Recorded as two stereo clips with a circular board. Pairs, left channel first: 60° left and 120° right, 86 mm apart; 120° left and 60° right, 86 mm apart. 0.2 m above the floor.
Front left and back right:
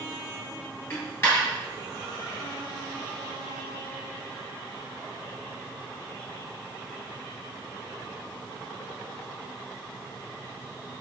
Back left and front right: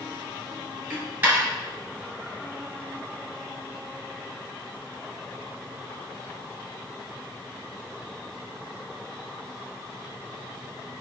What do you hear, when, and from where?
0.9 s a dropped coin: straight ahead, 1.6 m